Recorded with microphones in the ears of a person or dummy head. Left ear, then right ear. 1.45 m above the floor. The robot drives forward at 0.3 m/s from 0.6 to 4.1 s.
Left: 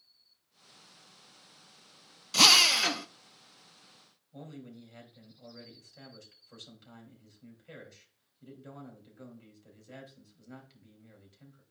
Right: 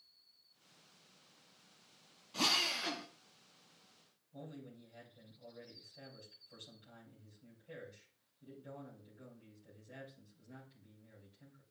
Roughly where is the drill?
Left.